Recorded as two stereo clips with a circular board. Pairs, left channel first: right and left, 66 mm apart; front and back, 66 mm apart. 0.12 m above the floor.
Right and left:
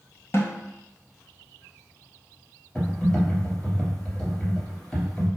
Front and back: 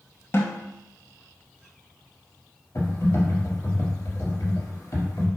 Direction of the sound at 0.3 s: 45° right.